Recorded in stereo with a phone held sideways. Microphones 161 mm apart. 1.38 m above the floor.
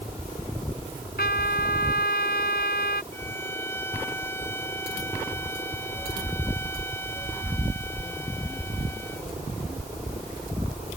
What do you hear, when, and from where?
1.2 s a trumpet: 75° left (ahead or behind)
3.1 s a violin: 15° left (ahead or behind)